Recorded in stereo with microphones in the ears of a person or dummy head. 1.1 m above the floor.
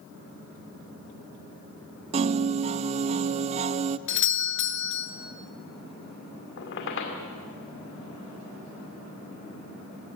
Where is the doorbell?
50° left (ahead or behind), 0.9 m.